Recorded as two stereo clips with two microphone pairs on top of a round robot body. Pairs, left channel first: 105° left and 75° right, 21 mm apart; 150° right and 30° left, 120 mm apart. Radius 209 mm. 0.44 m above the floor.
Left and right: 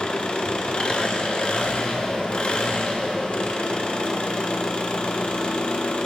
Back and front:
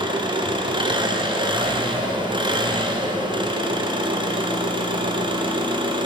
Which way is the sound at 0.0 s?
70° left.